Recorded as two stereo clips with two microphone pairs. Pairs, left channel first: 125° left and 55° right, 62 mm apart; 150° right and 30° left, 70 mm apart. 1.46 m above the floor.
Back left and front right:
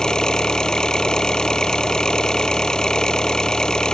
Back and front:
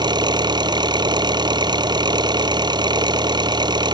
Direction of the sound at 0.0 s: 45° left.